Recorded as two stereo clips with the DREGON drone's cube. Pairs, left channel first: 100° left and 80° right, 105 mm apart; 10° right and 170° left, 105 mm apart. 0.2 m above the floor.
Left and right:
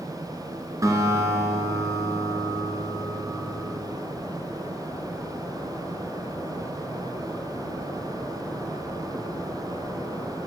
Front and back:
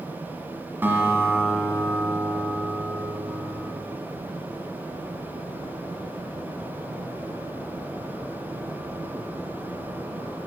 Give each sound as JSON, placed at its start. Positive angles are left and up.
{"t": 0.8, "sound": "a guitar", "azimuth_deg": -125, "distance_m": 1.7}